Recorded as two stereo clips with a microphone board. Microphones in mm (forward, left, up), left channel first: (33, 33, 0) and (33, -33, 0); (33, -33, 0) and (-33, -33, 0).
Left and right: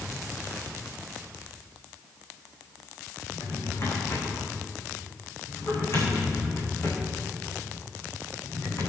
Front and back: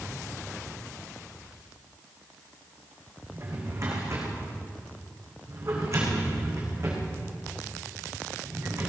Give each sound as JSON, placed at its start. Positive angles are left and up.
{"t": 3.3, "sound": "a drawer", "azimuth_deg": 140, "distance_m": 5.5}